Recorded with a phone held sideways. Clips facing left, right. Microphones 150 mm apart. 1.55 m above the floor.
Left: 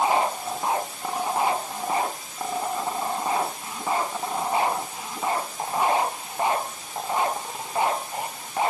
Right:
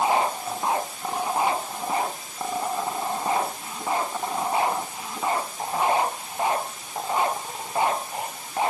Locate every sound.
Only background noise.